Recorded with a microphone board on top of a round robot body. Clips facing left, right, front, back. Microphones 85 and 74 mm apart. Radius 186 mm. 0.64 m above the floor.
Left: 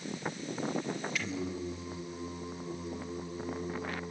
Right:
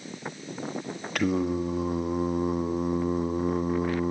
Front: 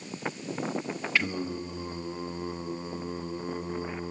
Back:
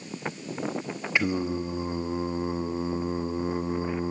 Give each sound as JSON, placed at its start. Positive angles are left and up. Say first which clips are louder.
{"t": 1.1, "sound": "singing", "louder": "right 11 dB, back 5 dB", "azimuth_deg": -110, "distance_m": 1.9}